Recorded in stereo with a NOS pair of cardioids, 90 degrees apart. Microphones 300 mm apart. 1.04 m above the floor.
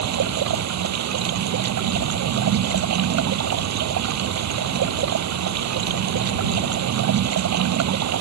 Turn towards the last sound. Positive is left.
turn(degrees=-65)